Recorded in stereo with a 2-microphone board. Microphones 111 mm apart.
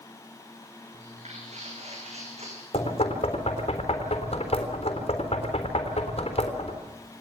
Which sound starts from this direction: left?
Knocking, at 2.7 s.